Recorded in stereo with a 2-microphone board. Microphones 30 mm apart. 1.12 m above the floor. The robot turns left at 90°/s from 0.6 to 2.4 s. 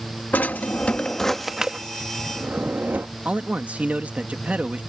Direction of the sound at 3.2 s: 50° right (ahead or behind).